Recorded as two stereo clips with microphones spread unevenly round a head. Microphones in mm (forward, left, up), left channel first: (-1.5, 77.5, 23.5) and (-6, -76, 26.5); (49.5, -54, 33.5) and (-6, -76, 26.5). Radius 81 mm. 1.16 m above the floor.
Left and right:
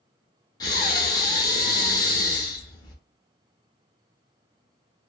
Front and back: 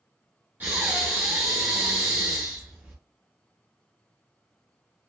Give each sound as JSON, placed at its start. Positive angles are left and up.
{"t": 0.6, "sound": "breathing", "azimuth_deg": 135, "distance_m": 0.9}